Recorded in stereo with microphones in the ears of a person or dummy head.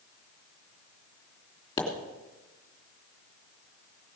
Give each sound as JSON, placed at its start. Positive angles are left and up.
{"t": 1.8, "sound": "a pop", "side_deg": 15, "distance_m": 2.5}